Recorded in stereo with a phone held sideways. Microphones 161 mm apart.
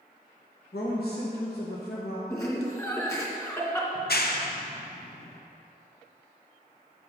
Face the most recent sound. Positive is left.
turn(degrees=75)  # may be behind; listen again after turning